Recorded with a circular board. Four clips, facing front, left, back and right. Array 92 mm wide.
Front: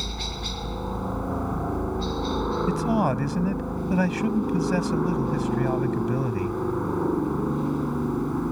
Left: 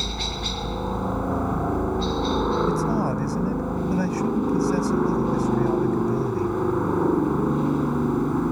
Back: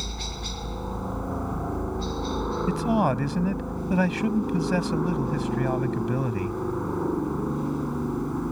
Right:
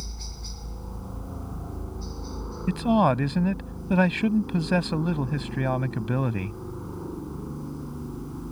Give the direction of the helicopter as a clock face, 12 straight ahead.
9 o'clock.